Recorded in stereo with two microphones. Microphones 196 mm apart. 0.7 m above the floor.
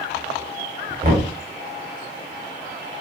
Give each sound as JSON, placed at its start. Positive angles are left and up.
{"t": 1.0, "sound": "knocking", "side_deg": -50, "distance_m": 0.9}